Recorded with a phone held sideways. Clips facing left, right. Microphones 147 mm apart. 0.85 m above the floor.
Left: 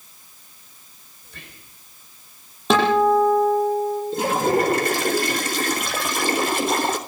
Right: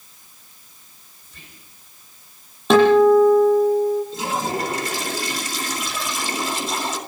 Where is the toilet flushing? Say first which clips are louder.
Left 5 dB; 60° left (ahead or behind), 3 m.